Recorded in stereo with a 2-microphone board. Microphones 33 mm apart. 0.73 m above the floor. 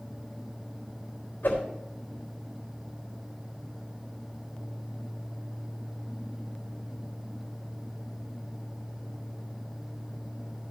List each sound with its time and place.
1.4 s a whoosh: 75° left (ahead or behind), 3.5 m